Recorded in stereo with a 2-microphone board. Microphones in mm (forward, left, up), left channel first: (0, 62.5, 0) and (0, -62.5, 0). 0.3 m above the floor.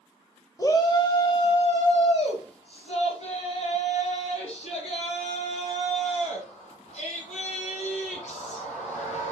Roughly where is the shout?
Left.